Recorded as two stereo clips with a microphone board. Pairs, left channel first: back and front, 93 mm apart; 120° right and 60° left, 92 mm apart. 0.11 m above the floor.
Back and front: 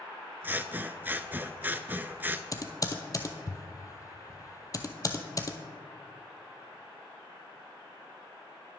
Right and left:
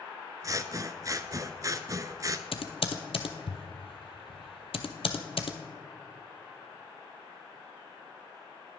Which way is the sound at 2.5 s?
130° right.